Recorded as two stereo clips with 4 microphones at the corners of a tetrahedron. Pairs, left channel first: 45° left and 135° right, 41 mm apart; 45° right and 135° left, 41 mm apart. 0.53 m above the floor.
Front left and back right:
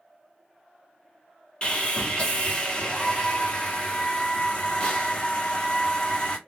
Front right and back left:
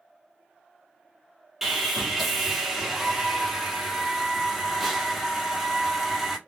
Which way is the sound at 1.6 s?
55° left.